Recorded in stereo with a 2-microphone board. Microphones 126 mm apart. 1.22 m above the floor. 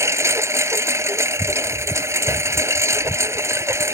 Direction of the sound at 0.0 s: 20° right (ahead or behind).